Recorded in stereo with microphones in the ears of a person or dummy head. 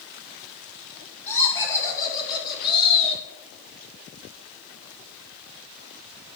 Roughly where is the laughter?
Centre.